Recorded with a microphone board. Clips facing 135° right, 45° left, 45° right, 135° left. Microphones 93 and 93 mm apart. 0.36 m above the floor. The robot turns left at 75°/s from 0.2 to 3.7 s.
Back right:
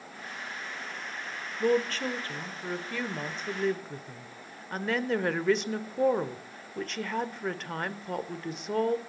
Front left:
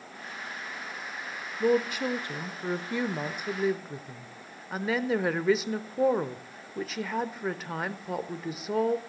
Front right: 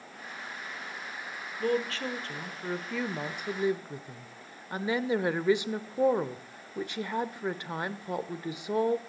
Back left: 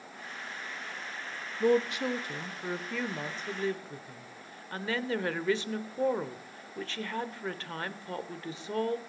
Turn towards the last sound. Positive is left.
turn(degrees=-30)